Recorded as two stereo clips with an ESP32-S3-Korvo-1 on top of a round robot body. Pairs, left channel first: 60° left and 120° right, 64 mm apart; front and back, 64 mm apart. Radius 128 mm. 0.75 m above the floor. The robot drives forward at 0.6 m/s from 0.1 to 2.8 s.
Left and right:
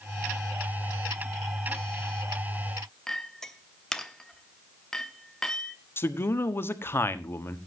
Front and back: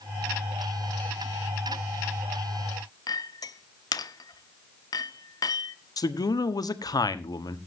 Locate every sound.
3.1 s a clink: 20° right, 0.9 m
6.0 s a man speaking: 10° left, 1.4 m